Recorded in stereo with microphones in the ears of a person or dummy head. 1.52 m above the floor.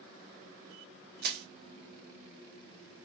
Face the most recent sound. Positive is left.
turn(degrees=-65)  # may be behind; listen again after turning